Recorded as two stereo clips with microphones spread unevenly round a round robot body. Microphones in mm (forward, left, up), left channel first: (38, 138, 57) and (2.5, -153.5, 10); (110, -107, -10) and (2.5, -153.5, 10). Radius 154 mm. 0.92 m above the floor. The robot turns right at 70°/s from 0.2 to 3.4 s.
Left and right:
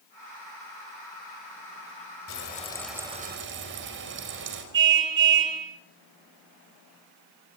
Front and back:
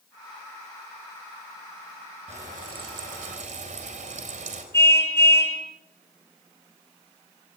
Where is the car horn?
45° right, 9 m.